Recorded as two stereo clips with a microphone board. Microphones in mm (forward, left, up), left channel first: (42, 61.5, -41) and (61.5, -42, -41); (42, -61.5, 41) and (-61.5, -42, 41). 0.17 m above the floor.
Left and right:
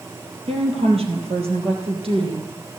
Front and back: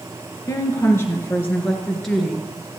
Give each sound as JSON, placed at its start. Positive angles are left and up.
{"t": 0.5, "sound": "a woman speaking", "azimuth_deg": -70, "distance_m": 3.0}